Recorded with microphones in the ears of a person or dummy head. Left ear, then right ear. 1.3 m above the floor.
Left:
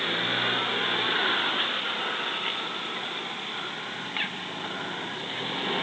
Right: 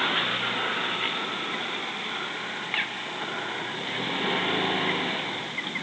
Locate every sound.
Only background noise.